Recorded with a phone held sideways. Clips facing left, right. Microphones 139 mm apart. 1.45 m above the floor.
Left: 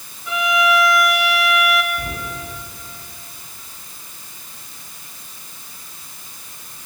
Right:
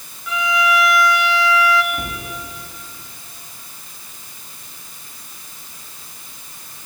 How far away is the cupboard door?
About 9 m.